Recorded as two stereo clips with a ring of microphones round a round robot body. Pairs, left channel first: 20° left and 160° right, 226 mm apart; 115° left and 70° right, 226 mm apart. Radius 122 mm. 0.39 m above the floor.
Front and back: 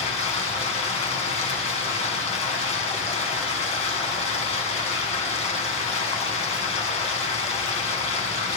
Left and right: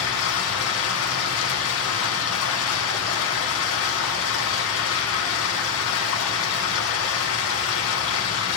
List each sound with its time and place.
0.0 s running water: 85° left, 3 m